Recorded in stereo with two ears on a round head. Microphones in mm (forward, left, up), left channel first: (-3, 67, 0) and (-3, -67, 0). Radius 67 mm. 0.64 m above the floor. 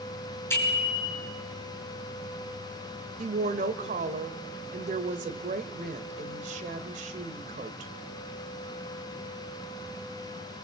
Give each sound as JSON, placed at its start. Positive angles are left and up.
{"t": 0.5, "sound": "a bicycle bell", "side_deg": 20, "distance_m": 6.0}
{"t": 3.2, "sound": "a woman speaking", "side_deg": -55, "distance_m": 2.0}